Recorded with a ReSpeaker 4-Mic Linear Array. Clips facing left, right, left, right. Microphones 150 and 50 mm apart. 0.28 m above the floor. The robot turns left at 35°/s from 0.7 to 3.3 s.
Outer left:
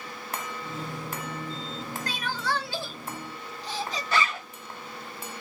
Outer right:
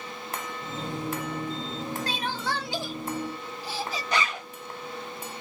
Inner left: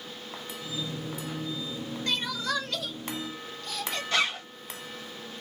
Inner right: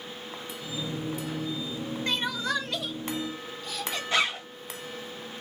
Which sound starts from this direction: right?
Crying, at 2.1 s.